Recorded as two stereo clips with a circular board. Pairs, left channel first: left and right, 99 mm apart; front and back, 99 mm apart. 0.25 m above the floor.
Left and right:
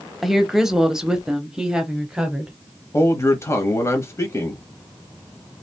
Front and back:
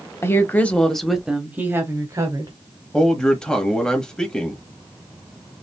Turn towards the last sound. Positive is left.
turn(degrees=75)